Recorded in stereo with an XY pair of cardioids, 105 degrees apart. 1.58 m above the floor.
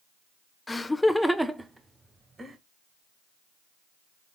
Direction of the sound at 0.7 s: 20° left.